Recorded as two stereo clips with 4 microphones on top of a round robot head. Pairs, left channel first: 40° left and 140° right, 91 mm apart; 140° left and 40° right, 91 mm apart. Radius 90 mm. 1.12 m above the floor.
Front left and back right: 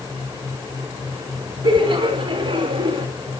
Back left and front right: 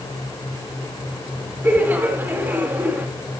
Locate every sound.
1.6 s laughter: 110° right, 2.5 m